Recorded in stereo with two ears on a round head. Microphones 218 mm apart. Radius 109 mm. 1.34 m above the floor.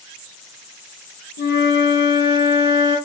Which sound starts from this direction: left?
A flute, at 1.4 s.